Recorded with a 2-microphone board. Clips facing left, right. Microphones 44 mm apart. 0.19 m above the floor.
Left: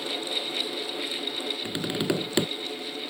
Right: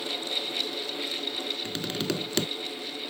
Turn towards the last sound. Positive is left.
turn(degrees=15)  # may be behind; listen again after turning